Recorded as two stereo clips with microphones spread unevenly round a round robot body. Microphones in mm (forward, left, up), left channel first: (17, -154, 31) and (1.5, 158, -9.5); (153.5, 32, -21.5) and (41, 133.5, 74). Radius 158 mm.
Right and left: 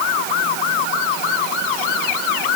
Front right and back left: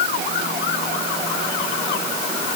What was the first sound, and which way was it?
Only background noise.